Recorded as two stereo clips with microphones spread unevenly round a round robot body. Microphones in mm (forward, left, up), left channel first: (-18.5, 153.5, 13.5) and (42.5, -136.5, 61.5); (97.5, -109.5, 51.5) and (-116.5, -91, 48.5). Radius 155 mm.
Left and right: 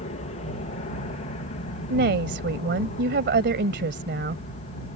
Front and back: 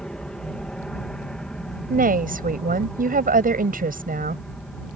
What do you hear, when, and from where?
0.0 s an aircraft: 80° left
1.9 s a woman speaking: 135° right